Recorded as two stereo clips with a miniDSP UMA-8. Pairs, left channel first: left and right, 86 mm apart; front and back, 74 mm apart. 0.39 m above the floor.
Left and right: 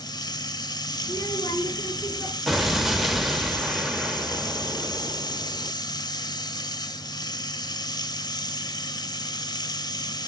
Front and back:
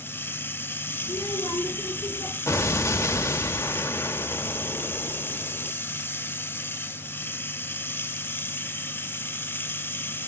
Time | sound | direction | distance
0.0 | running water | 60° left | 0.8 m
1.0 | a child speaking | 30° left | 3.5 m
2.5 | an explosion | 5° right | 0.8 m